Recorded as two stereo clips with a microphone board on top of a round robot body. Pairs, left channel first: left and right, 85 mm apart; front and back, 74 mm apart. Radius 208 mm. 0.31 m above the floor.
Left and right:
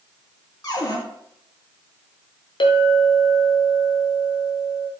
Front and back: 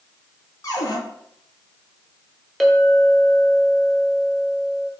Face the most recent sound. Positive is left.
turn(degrees=90)